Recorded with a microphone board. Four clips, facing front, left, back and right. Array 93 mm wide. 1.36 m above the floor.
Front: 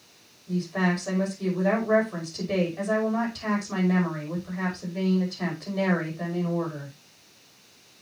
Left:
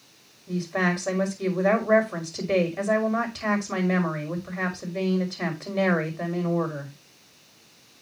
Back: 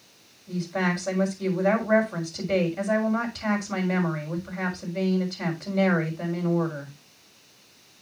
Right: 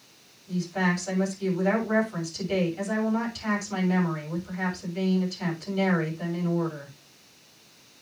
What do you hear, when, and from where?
0.5 s a woman speaking: 90° left, 5.5 m